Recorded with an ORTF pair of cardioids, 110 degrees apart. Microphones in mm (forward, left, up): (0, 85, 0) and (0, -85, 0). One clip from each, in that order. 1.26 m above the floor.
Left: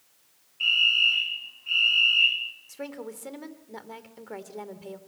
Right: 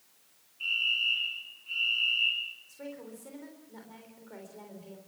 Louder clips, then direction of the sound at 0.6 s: Left 8 dB; 60° left.